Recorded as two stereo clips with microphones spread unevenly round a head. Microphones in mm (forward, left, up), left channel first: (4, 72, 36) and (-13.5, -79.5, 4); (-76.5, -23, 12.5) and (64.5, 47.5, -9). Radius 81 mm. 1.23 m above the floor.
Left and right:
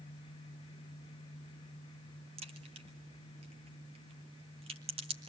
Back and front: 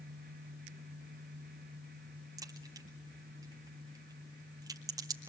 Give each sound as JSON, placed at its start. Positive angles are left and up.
{"t": 2.4, "sound": "a crack", "azimuth_deg": -45, "distance_m": 1.9}